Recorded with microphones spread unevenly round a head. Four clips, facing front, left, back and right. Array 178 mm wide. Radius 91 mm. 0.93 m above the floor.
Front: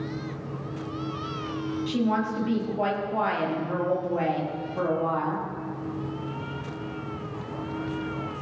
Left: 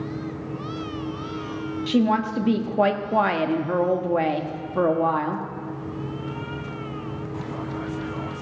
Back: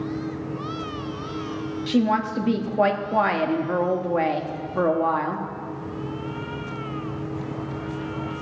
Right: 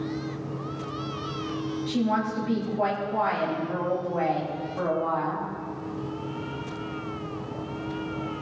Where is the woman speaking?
115° left, 1.3 m.